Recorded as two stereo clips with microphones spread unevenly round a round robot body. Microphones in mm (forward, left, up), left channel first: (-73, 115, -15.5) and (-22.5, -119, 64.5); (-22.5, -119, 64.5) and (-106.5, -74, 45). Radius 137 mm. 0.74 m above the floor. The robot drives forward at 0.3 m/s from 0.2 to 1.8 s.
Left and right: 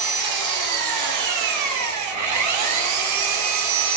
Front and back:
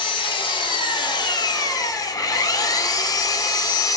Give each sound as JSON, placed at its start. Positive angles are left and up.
{"t": 0.0, "sound": "an engine running", "azimuth_deg": -60, "distance_m": 1.3}